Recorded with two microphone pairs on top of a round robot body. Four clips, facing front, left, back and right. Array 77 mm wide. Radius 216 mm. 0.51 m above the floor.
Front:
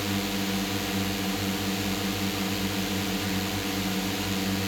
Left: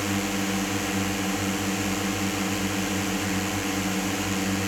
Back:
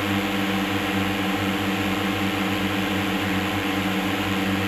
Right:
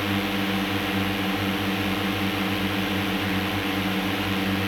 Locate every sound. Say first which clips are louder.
0.0 s a drone: right 2 dB, back 6 dB; 165° right